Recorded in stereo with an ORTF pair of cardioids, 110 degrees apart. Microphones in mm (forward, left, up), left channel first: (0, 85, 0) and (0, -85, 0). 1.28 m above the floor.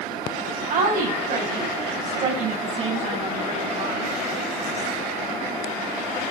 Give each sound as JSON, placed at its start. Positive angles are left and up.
{"t": 0.7, "sound": "a woman speaking", "azimuth_deg": -50, "distance_m": 8.5}